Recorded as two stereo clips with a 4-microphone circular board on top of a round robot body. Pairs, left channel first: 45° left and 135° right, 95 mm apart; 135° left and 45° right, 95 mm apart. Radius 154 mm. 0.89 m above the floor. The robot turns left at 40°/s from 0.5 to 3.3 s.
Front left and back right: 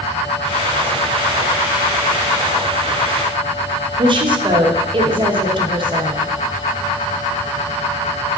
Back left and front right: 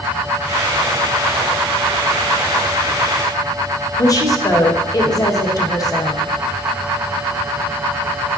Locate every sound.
4.0 s a woman speaking: 170° right, 1.1 m